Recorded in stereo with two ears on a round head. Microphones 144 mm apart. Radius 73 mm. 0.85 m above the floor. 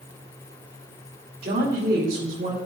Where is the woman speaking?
65° right (ahead or behind), 2.5 m.